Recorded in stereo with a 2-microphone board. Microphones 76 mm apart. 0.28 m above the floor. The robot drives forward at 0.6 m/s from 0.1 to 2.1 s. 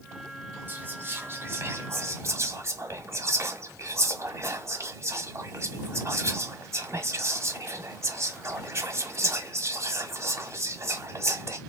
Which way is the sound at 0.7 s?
30° right (ahead or behind).